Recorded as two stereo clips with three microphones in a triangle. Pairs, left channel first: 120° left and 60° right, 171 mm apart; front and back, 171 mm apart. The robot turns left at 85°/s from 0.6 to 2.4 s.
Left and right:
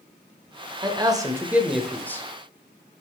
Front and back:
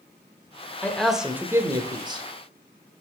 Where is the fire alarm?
No fire alarm in this recording.